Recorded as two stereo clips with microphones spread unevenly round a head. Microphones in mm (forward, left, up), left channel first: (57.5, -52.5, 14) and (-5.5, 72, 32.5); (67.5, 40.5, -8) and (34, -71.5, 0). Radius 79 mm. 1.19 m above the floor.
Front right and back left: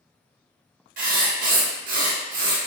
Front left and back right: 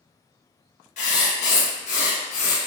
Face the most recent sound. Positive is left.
turn(degrees=105)